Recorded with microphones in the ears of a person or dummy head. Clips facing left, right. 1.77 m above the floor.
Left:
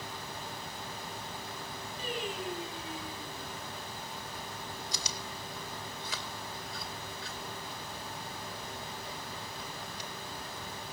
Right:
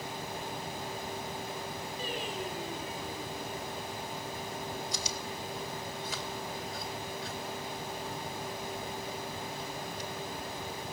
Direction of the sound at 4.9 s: 60° left (ahead or behind).